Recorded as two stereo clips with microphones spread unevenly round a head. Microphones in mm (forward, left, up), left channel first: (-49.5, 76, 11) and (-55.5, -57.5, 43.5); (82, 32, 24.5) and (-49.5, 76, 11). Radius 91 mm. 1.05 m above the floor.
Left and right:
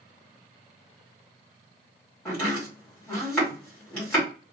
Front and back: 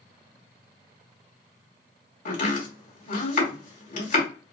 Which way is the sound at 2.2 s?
Straight ahead.